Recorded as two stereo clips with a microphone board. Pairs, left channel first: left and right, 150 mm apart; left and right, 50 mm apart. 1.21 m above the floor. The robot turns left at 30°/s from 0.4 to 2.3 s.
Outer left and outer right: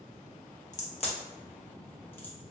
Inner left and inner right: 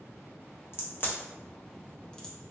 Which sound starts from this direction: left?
A crack, at 0.7 s.